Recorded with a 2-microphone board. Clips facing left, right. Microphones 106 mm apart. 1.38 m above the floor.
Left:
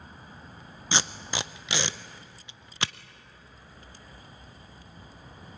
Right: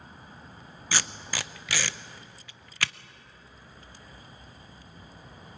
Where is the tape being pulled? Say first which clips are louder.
Left 2 dB; 20° left (ahead or behind), 0.5 m.